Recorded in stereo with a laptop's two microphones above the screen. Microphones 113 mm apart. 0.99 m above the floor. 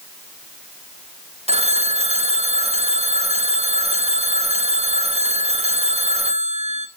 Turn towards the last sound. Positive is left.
turn(degrees=-65)  # may be behind; listen again after turning